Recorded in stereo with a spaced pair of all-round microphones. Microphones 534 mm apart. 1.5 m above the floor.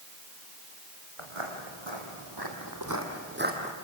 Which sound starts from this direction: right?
Footsteps, at 1.2 s.